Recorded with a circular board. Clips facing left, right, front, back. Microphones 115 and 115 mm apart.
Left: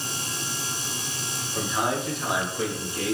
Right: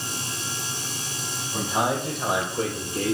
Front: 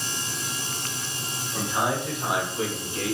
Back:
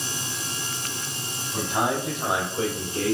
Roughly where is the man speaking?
Behind right.